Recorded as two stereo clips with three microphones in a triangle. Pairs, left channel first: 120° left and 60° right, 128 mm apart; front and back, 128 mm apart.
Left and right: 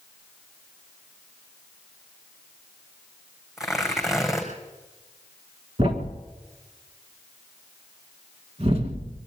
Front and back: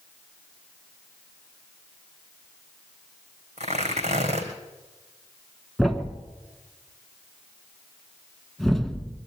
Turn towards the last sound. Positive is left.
turn(degrees=-90)